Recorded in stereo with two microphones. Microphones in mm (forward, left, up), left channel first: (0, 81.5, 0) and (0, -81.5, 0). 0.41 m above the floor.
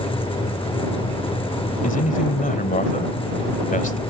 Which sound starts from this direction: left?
A man speaking, at 1.8 s.